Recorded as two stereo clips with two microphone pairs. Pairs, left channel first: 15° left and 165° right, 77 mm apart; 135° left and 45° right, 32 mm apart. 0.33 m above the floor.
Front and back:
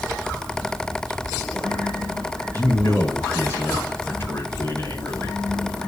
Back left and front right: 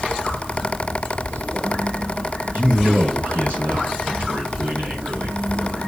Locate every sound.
2.5 s a man speaking: 40° right, 4.5 m